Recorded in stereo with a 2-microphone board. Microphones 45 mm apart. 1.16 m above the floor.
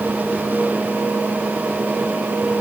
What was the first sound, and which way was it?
Only background noise.